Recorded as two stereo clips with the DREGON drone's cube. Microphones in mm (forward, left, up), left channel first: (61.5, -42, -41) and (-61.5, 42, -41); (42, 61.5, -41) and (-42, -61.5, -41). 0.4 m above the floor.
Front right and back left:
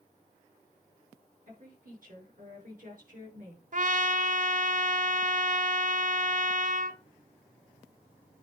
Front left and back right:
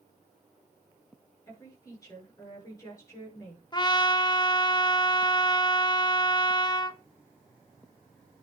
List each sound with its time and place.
1.5 s a woman speaking: 125° left, 5.5 m
3.7 s a trumpet: 115° left, 0.7 m